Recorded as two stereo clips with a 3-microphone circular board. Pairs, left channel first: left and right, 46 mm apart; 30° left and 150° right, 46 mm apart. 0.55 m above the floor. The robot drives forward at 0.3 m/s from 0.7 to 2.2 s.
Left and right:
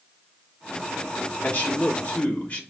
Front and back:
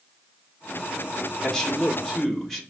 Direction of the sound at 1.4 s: 95° left.